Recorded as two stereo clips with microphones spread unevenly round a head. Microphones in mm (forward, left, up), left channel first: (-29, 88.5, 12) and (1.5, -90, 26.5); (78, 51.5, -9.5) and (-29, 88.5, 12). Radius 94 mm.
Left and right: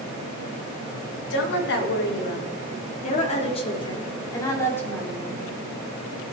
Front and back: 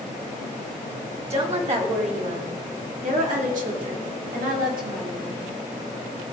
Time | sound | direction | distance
1.3 | a woman speaking | 125° left | 3 m